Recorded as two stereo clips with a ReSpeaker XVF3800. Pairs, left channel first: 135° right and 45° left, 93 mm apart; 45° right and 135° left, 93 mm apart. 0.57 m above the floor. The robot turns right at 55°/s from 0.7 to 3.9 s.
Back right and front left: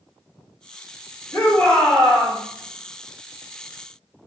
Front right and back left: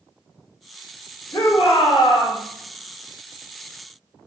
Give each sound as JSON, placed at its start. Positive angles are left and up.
{"t": 1.3, "sound": "a shout", "azimuth_deg": -75, "distance_m": 1.5}